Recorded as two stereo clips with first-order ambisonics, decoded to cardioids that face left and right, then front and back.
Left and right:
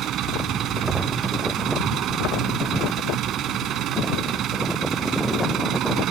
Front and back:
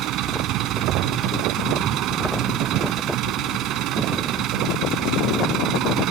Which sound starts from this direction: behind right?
An engine running, at 0.0 s.